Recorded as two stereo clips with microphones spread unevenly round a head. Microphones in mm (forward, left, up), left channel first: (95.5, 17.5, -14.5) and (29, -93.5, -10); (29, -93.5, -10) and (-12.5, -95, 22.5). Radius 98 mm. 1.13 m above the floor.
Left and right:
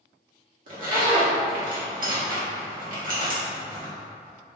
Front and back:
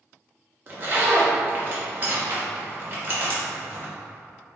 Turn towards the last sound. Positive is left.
turn(degrees=-120)